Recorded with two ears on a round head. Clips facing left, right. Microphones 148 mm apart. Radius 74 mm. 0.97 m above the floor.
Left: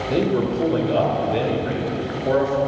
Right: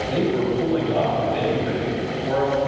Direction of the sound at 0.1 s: 55° left (ahead or behind).